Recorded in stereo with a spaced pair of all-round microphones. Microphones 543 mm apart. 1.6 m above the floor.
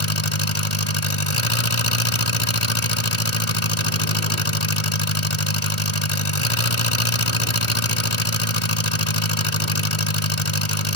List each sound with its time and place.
0.0 s an engine running: 65° left (ahead or behind)